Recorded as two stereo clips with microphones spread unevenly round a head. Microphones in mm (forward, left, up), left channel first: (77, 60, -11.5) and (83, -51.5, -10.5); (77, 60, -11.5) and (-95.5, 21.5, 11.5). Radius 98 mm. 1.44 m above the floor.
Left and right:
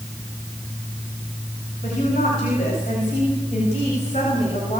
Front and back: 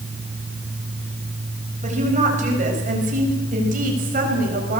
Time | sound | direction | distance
1.8 | a woman speaking | 145° left | 7.5 m